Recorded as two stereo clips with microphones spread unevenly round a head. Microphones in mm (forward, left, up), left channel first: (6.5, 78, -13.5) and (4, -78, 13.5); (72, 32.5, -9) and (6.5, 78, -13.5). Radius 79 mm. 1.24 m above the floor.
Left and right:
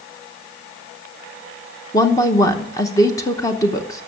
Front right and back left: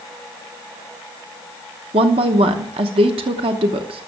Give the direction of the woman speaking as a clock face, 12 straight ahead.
7 o'clock.